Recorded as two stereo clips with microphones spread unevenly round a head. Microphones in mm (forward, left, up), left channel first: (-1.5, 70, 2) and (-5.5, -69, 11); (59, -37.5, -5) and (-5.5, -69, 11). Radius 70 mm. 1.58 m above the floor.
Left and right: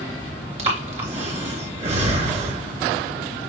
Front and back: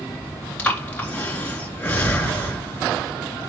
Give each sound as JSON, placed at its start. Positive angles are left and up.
{"t": 0.6, "sound": "breathing", "azimuth_deg": -45, "distance_m": 4.0}